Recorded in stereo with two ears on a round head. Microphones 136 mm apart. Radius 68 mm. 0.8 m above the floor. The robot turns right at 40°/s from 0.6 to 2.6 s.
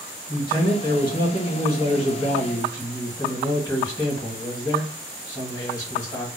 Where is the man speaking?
55° left, 1.2 m; by 6.3 s 135° left, 1.2 m.